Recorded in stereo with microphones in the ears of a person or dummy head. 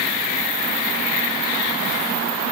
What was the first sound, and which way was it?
Only background noise.